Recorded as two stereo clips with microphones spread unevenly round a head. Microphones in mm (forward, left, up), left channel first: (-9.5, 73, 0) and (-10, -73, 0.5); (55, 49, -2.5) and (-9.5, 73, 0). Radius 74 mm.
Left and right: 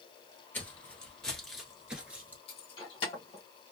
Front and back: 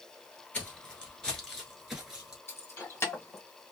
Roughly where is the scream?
I don't hear a scream.